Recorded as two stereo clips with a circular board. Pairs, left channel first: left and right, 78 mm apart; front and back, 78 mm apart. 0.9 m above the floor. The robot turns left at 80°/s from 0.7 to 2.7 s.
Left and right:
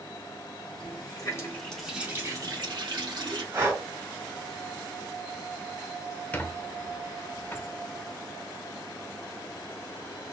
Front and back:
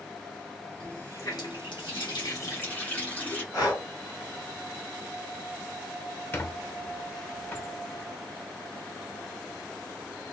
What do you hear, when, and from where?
0.8 s a running tap: 80° left, 1.6 m; by 3.4 s 70° right, 1.6 m
3.5 s breathing: 45° right, 2.5 m
6.3 s a squeak: 40° left, 0.6 m